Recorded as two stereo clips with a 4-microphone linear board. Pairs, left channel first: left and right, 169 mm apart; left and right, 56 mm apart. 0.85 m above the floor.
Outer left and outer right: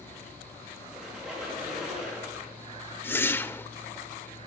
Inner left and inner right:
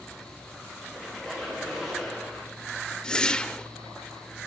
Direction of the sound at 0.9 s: Centre (ahead or behind).